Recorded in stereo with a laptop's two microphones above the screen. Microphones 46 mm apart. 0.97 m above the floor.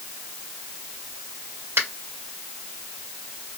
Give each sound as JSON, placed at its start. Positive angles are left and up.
{"t": 1.8, "sound": "a finger snap", "side_deg": -80, "distance_m": 1.8}